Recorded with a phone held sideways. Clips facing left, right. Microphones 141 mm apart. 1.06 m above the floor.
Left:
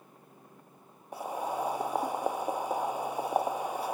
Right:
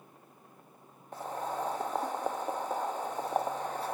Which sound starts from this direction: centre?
Boiling, at 1.1 s.